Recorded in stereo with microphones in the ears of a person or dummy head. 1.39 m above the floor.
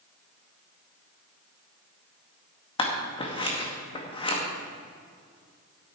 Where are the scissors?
25° left (ahead or behind), 1.9 m.